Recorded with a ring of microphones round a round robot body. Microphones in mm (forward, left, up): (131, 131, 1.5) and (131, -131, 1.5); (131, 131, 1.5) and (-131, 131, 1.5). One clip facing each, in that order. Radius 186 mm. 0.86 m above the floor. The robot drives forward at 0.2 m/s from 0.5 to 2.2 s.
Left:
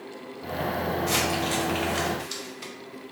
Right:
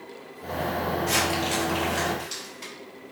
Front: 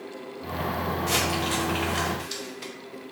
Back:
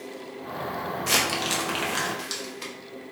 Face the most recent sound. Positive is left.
turn(degrees=170)